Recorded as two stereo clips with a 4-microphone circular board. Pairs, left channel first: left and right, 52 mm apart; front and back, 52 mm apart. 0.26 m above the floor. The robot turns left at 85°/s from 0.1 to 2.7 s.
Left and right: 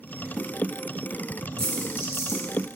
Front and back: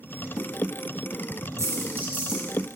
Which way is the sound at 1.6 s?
170° left.